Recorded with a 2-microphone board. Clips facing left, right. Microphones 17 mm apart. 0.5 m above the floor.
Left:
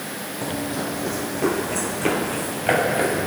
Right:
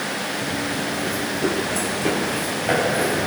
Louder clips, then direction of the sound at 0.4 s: Right 2 dB; 40° left (ahead or behind).